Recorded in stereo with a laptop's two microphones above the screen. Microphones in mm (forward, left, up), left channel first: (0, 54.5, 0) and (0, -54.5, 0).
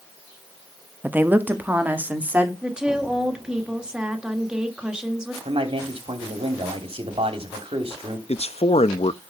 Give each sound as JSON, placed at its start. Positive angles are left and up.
{"t": 1.0, "sound": "a woman speaking", "side_deg": -20, "distance_m": 1.3}
{"t": 2.6, "sound": "a woman speaking", "side_deg": -5, "distance_m": 1.8}
{"t": 5.5, "sound": "a man speaking", "side_deg": -55, "distance_m": 3.0}
{"t": 8.3, "sound": "a man speaking", "side_deg": 70, "distance_m": 0.8}